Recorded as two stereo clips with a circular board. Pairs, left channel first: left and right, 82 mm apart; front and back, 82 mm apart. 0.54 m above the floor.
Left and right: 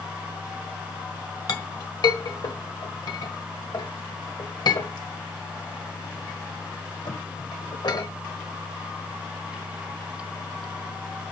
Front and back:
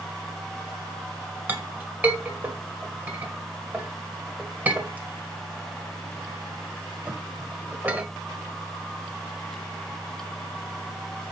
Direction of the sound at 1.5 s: 115° left.